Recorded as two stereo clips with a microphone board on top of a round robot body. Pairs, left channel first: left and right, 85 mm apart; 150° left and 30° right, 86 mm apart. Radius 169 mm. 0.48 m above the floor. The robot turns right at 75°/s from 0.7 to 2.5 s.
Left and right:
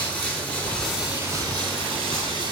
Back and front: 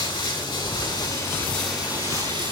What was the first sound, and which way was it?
Running water, 165° left.